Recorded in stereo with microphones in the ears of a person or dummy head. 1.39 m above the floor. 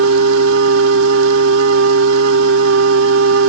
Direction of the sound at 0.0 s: 80° right.